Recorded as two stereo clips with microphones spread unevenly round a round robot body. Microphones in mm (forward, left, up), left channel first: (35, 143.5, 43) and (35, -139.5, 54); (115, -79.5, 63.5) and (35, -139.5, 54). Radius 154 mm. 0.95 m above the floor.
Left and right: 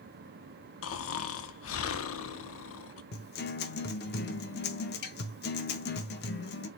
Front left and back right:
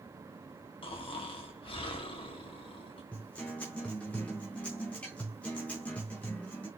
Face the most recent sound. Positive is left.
turn(degrees=95)